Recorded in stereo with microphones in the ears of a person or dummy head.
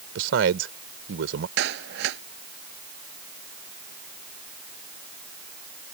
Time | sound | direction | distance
0.1 | a man speaking | 75° right (ahead or behind) | ?
1.6 | a clap | 65° right (ahead or behind) | ?